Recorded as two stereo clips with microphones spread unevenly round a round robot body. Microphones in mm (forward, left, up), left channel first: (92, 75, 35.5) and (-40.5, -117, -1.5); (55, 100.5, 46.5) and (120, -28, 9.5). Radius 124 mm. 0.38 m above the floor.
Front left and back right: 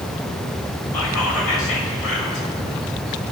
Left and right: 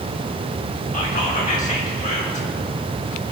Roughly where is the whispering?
Left.